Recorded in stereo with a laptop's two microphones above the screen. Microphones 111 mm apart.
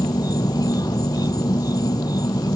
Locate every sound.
0.0 s an insect: 35° left (ahead or behind)